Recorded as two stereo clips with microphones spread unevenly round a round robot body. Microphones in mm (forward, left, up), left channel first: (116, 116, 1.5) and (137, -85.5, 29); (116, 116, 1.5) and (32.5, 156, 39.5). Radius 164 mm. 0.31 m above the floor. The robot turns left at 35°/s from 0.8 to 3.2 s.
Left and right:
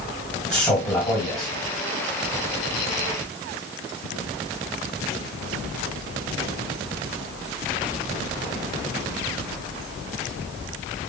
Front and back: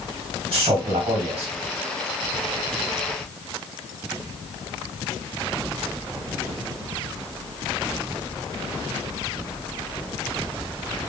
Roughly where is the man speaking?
Behind.